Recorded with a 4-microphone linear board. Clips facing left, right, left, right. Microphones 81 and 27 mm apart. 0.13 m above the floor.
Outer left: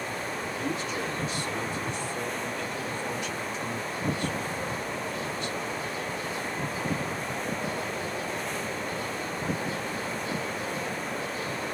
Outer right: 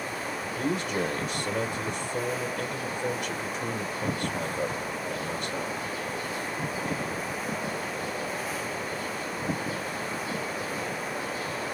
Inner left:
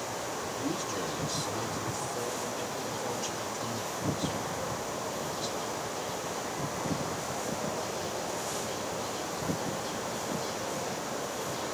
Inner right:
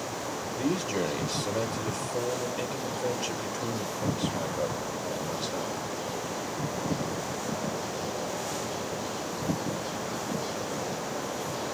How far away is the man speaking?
About 2.5 m.